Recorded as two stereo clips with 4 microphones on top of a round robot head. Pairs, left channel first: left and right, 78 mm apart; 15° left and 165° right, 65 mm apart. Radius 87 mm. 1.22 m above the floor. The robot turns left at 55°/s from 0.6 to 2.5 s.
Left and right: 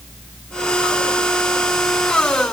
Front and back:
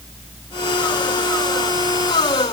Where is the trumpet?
I don't hear a trumpet.